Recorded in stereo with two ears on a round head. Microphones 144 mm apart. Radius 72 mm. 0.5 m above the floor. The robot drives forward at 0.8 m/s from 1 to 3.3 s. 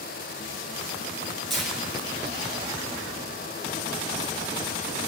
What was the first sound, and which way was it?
Tearing paper, centre (ahead or behind).